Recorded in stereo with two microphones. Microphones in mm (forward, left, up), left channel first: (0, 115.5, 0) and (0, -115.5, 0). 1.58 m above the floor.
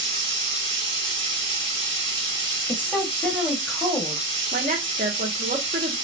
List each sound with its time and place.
0.0 s running water: 50° right (ahead or behind), 1.9 m
2.7 s a woman speaking: 5° left (ahead or behind), 1.7 m
4.5 s a woman speaking: 35° right (ahead or behind), 1.0 m